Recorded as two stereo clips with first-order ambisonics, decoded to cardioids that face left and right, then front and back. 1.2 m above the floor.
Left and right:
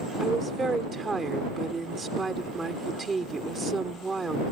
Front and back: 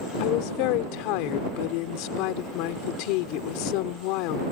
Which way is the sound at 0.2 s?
10° right.